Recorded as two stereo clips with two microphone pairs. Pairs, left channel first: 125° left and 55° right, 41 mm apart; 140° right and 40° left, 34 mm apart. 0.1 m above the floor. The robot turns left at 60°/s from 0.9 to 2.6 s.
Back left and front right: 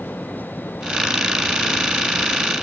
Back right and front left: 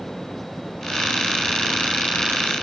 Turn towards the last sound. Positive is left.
No sound to turn to.